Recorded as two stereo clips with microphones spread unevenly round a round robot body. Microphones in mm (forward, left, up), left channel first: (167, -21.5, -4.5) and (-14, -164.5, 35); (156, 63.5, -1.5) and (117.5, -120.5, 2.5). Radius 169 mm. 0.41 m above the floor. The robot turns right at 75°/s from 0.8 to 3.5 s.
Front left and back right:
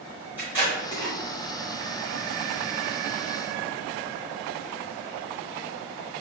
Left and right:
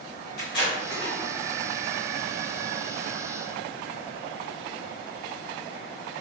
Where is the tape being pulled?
130° left, 0.6 m; by 1.1 s 155° left, 0.6 m.